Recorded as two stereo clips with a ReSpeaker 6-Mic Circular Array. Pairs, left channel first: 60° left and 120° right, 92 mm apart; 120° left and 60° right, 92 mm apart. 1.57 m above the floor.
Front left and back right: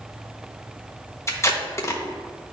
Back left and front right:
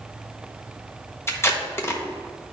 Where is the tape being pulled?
85° left, 0.8 m.